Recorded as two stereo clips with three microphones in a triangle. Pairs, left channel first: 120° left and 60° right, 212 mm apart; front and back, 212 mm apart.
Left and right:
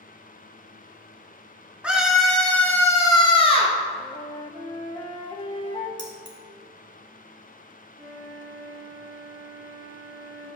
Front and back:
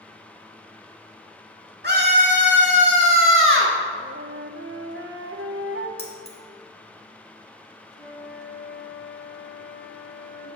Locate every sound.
1.8 s a scream: 145° right, 1.9 m; by 3.8 s straight behind, 1.5 m
4.0 s a flute: 175° right, 0.6 m
6.0 s keys jangling: 35° right, 1.3 m
7.9 s a flute: 25° right, 3 m